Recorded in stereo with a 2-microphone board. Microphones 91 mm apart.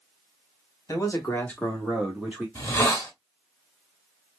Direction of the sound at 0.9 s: 40° left (ahead or behind).